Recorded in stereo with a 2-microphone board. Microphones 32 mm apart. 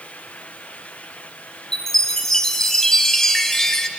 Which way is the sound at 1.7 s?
15° left (ahead or behind).